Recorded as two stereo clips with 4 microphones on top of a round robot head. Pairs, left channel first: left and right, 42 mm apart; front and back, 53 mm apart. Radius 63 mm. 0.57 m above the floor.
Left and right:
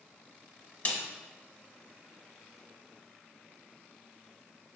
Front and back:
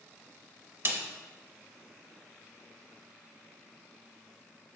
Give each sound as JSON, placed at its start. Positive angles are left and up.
{"t": 0.8, "sound": "a snare drum", "azimuth_deg": 145, "distance_m": 1.0}